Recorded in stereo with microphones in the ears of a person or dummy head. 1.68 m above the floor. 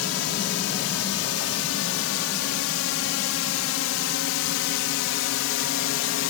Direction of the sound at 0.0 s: 80° left.